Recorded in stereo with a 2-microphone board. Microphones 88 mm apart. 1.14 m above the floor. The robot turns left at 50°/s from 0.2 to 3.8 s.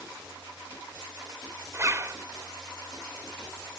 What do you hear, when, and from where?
1.7 s a zipper: 35° right (ahead or behind)